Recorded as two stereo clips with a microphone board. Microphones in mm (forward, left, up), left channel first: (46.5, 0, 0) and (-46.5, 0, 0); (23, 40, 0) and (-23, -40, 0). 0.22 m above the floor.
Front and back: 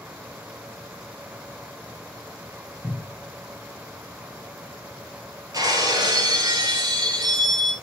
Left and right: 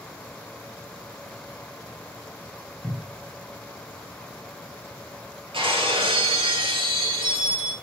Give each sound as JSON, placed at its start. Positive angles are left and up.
{"t": 2.8, "sound": "a cupboard door", "azimuth_deg": -50, "distance_m": 2.5}
{"t": 5.5, "sound": "breaking glass", "azimuth_deg": -135, "distance_m": 2.5}